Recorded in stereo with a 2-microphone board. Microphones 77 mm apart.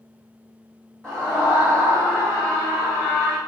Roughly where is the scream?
Centre.